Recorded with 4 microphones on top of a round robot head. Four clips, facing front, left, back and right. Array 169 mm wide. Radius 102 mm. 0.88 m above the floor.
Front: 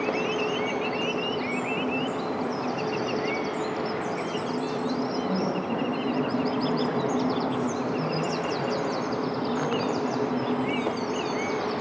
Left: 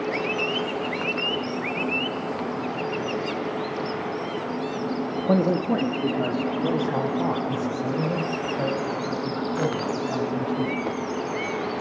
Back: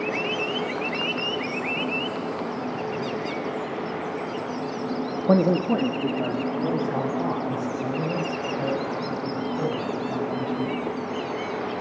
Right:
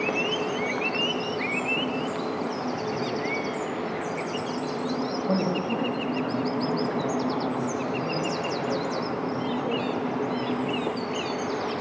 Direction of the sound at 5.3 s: 160° left.